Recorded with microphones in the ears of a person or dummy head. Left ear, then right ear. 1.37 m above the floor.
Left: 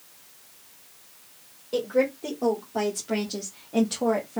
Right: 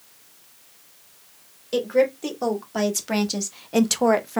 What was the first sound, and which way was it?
A woman speaking, 55° right (ahead or behind).